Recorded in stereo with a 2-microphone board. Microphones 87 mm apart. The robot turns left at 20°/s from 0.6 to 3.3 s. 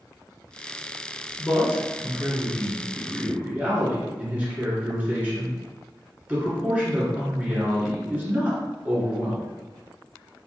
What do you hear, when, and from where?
1.4 s a man speaking: 15° right (ahead or behind), 1.5 m; by 9.4 s 20° right (ahead or behind), 1.5 m